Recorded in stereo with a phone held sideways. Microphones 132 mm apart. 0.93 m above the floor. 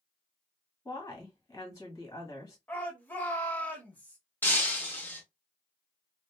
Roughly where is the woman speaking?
Left.